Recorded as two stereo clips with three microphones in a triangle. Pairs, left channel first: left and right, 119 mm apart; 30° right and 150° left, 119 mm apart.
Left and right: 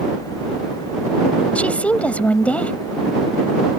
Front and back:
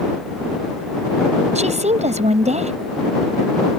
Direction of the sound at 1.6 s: 170° left.